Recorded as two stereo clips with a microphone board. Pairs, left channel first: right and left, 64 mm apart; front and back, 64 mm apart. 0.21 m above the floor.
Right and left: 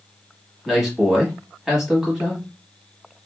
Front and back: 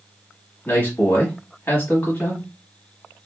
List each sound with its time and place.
0.7 s a man speaking: 10° left, 1.1 m